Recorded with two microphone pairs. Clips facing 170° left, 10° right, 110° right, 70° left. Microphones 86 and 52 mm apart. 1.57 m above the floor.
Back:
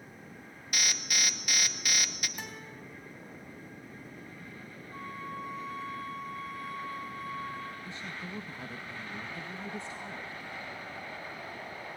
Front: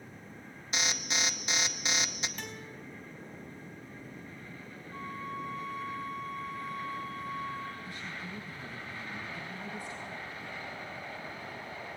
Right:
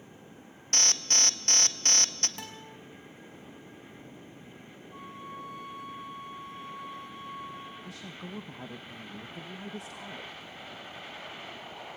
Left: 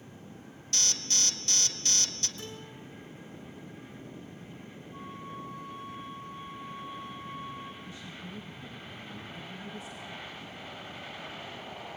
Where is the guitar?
115° right, 3.5 m.